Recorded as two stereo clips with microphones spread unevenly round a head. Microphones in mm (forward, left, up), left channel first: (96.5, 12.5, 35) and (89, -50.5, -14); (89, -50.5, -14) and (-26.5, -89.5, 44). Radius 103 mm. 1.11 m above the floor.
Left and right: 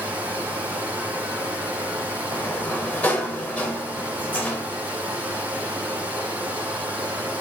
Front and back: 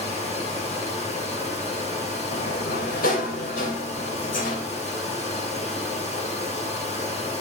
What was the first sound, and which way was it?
Running water, 15° right.